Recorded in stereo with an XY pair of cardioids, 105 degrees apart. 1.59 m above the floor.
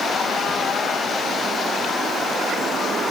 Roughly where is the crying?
I don't hear crying.